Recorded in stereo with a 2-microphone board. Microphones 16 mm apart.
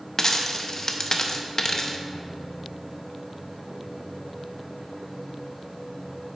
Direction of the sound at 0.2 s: 30° left (ahead or behind).